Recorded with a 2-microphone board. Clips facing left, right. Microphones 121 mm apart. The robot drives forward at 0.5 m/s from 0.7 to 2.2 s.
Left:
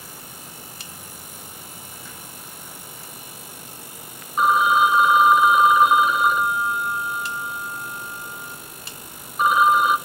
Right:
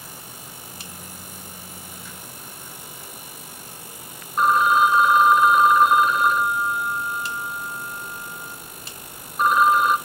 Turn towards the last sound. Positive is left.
turn(degrees=5)  # may be behind; listen again after turning